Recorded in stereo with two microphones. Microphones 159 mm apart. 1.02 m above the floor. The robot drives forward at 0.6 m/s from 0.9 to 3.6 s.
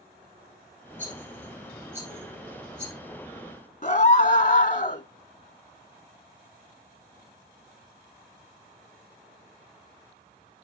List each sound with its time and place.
1.0 s a rattle: 15° right (ahead or behind), 8 m; by 2.9 s 10° right (ahead or behind), 9 m
3.8 s a scream: 50° left (ahead or behind), 1.1 m